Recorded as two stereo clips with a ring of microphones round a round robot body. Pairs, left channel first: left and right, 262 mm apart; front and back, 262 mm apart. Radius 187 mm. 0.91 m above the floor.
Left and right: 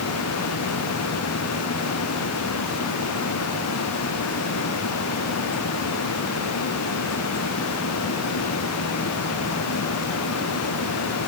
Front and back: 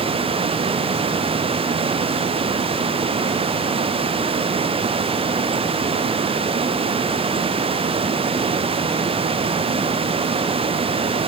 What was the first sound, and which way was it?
Only background noise.